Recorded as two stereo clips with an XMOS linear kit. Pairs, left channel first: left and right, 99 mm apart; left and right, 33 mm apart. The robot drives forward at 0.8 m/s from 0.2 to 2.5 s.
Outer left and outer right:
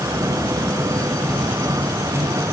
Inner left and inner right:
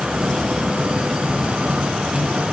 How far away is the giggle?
No giggle in this recording.